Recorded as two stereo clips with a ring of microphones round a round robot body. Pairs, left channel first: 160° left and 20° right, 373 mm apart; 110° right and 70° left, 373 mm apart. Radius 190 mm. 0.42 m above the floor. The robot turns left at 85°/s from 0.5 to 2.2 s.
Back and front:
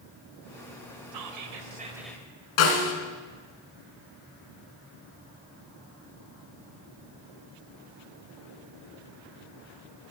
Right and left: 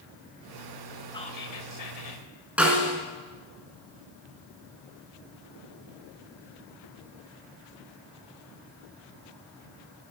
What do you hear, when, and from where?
1.1 s whispering: 30° right, 2.5 m; by 2.3 s 125° right, 2.5 m
2.6 s a snare drum: 155° left, 3 m